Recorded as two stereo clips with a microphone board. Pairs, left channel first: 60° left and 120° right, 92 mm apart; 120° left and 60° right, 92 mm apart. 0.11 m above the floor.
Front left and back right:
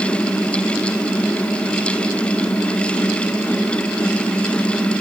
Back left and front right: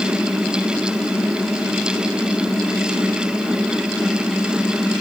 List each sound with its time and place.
Only background noise.